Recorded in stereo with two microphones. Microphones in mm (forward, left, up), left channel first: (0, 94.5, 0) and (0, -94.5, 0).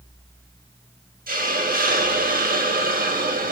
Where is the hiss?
50° right (ahead or behind), 0.7 m.